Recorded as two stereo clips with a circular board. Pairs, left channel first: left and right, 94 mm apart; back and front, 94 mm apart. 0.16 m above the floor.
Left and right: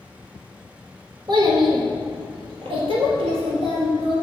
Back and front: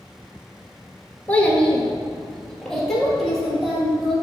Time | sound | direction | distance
1.3 | a child speaking | 110° right | 1.3 m